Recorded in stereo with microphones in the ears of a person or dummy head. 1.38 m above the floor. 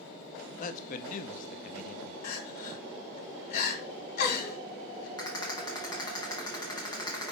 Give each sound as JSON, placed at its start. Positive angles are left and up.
{"t": 0.6, "sound": "a man speaking", "side_deg": 45, "distance_m": 0.6}
{"t": 2.2, "sound": "crying", "side_deg": 55, "distance_m": 2.0}
{"t": 5.2, "sound": "a rattle", "side_deg": 30, "distance_m": 2.0}